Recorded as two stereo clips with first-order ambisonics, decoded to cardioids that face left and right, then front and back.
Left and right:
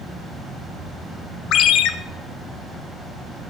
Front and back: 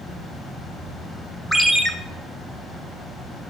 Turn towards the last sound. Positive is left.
turn(degrees=85)